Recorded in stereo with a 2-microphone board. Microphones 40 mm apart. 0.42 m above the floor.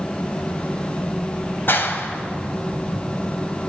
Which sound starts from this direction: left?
A clap, at 1.7 s.